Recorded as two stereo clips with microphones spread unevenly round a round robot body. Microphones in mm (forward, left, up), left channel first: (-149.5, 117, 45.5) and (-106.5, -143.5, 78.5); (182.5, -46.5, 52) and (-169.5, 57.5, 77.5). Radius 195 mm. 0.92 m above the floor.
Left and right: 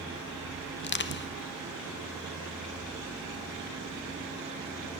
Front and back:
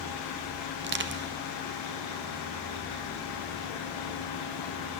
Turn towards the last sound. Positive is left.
turn(degrees=110)